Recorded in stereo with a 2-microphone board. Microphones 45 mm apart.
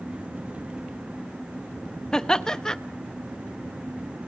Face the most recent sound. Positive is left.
turn(degrees=15)  # may be behind; listen again after turning